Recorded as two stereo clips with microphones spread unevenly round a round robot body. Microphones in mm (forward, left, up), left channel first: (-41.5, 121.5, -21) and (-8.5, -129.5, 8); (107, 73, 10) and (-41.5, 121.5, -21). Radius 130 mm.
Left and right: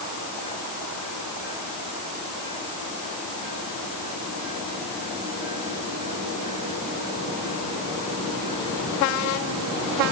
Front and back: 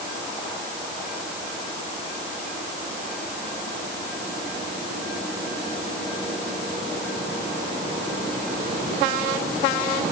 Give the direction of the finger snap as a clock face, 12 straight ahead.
I don't hear a finger snap.